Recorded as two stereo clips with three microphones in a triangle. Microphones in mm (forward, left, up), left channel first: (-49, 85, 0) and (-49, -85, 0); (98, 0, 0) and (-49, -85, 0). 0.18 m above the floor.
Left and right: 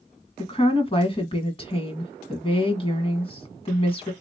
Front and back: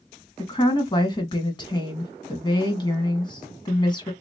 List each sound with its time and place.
0.4 s a woman speaking: 70° left, 1.6 m